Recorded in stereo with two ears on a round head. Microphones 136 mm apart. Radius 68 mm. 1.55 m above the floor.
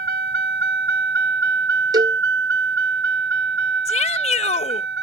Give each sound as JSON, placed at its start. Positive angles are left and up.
{"t": 0.0, "sound": "a vehicle", "side_deg": -70}
{"t": 1.9, "sound": "a cowbell", "side_deg": -25}
{"t": 3.9, "sound": "a shout", "side_deg": 45}